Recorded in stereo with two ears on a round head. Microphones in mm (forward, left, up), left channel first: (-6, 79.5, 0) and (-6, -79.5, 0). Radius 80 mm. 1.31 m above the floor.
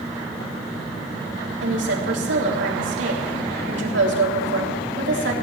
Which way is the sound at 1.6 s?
75° right (ahead or behind).